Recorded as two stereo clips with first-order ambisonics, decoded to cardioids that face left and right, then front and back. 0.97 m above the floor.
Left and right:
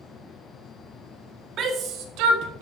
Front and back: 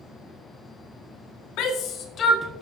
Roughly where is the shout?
Ahead right.